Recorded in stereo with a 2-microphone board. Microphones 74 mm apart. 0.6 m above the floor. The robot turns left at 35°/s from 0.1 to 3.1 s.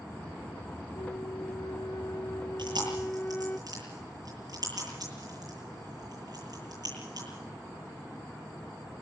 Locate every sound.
0.9 s a flute: 100° left, 0.6 m; by 3.6 s 20° left, 0.6 m
2.6 s chewing: 70° right (ahead or behind), 9.5 m; by 7.3 s 50° right (ahead or behind), 9.5 m